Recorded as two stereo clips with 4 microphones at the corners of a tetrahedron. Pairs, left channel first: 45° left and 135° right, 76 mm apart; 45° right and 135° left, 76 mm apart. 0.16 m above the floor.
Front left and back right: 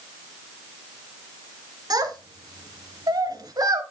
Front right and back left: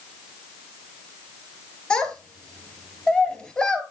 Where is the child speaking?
120° right, 1.6 m.